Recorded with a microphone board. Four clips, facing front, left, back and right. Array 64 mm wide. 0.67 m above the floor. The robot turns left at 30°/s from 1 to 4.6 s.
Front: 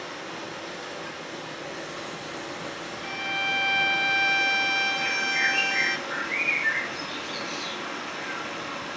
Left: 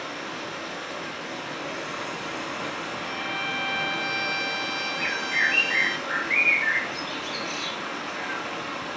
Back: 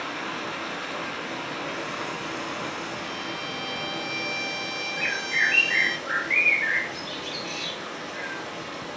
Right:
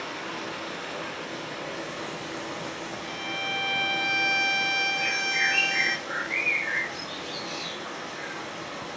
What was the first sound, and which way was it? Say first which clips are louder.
Running water: left 1 dB, back 4 dB; 175° left.